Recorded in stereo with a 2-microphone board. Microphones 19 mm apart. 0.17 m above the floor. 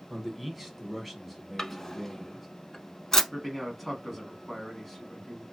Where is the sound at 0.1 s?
Centre (ahead or behind), 1.0 m.